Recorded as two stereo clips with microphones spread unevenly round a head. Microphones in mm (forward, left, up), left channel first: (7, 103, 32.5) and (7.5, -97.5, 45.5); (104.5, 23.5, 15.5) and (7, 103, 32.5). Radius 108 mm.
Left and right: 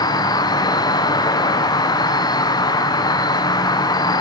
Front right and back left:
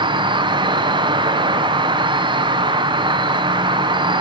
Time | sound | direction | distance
0.0 | an insect | 130° left | 1.5 m